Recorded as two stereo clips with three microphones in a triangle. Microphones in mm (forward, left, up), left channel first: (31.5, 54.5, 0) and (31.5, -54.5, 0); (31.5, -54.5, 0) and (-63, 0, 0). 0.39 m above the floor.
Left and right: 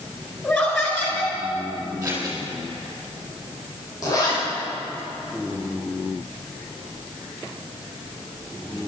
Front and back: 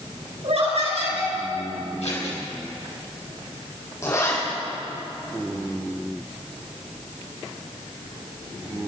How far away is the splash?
I don't hear a splash.